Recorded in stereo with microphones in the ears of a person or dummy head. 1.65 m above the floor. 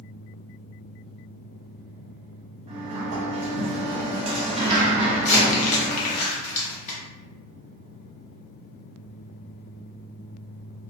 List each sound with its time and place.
2.7 s a sliding door: 30° right (ahead or behind), 0.7 m
5.2 s crumpling: 40° left (ahead or behind), 0.7 m